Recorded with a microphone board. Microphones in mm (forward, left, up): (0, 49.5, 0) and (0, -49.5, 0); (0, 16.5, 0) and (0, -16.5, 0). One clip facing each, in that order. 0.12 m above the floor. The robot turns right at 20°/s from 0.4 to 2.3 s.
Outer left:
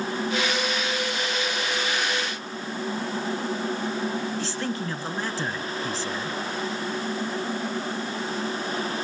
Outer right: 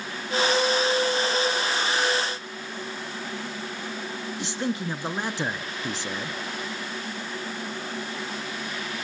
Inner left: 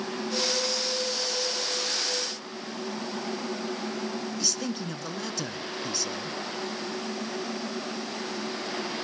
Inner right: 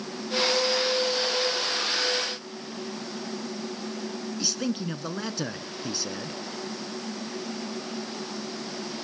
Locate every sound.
4.4 s a man speaking: 20° right (ahead or behind), 1.1 m